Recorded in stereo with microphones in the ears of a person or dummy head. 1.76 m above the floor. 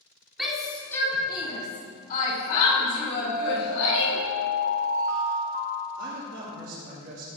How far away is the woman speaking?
About 3 m.